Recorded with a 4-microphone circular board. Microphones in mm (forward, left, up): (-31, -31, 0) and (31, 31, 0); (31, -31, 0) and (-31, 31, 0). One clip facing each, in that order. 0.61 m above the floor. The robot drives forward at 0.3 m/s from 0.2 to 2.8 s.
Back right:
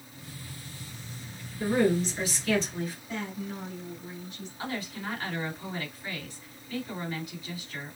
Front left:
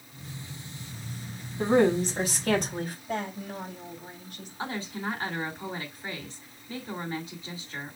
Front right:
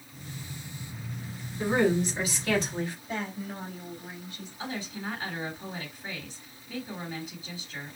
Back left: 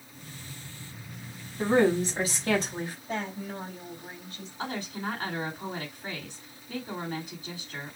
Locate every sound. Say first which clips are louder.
1.6 s a woman speaking: front left 3 dB, back left 2 dB; 75° left, 3.5 m; by 3.0 s 85° left, 3.5 m
3.1 s a woman speaking: front left 3 dB, back left 1 dB; 85° left, 3.5 m
4.6 s a woman speaking: front left 2 dB, back left 2 dB; 105° left, 2.5 m